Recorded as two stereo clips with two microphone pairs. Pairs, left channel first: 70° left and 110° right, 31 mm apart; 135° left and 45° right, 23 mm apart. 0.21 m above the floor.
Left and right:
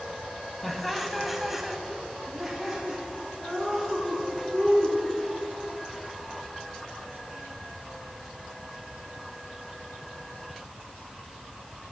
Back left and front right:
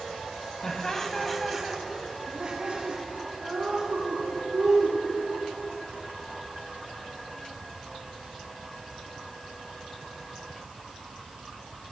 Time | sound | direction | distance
0.6 | laughter | 155° left | 1.2 m